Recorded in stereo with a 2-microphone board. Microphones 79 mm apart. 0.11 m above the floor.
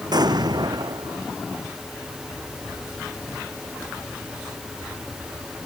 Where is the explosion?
60° right (ahead or behind).